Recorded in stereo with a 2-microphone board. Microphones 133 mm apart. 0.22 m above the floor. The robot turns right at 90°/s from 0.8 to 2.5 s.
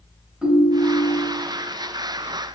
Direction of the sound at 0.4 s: 5° right.